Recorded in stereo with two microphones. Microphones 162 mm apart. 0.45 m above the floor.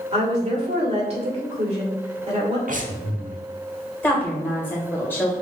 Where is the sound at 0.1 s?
40° right (ahead or behind), 1.6 m.